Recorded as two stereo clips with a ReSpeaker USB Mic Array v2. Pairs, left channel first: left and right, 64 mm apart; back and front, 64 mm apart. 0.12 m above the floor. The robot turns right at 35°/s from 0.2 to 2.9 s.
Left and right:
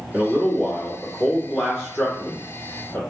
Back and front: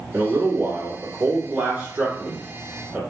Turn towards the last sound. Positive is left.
turn(degrees=65)